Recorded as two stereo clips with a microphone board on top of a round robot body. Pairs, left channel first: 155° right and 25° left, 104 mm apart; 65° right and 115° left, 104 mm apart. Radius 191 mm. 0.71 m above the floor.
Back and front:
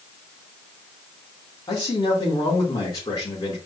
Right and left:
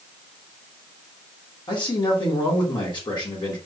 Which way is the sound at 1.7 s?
110° right.